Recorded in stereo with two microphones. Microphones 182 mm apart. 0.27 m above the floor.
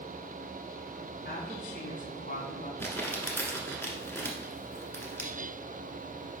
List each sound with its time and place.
1.2 s a woman speaking: 55° left (ahead or behind), 3 m; by 2.7 s 45° left (ahead or behind), 2.5 m
2.8 s crumpling: 15° left (ahead or behind), 1.5 m